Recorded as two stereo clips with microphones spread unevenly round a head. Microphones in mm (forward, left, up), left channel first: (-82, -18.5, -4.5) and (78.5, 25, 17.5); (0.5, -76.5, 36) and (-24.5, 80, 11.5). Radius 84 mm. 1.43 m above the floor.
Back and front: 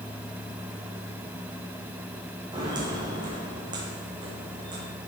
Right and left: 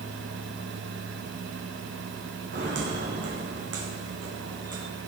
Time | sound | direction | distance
2.5 | footsteps | 75° left | 3.5 m